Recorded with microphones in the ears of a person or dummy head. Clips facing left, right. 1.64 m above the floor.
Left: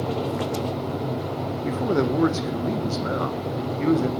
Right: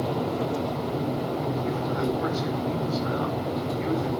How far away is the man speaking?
About 1.8 m.